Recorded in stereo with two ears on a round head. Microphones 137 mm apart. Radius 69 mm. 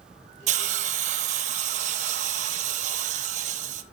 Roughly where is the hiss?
Right.